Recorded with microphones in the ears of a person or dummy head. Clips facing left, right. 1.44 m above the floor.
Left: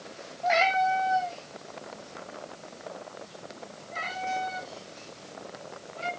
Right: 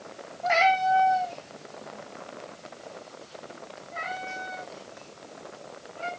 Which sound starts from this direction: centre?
A cat meowing, at 0.4 s.